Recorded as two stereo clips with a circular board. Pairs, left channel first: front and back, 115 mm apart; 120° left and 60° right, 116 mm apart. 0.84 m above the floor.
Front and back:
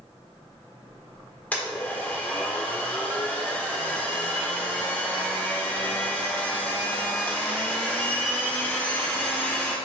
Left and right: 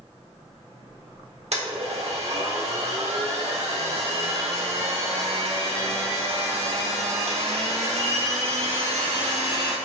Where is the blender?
75° right, 1.0 m.